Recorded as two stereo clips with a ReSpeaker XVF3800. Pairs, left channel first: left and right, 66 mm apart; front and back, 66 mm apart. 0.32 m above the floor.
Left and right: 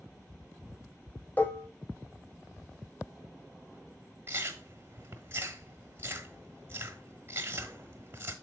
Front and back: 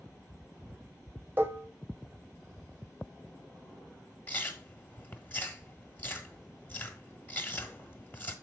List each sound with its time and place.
1.4 s dishes clattering: 140° left, 0.7 m
4.3 s chewing: 50° right, 1.2 m